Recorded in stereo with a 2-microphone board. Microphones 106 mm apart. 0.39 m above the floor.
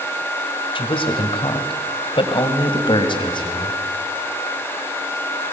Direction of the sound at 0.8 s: 50° left (ahead or behind).